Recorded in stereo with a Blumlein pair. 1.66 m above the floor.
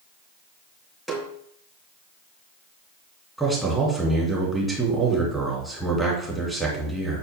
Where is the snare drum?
Straight ahead, 2.5 m.